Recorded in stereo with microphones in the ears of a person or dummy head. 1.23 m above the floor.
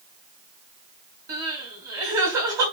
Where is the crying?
20° right (ahead or behind), 5.5 m.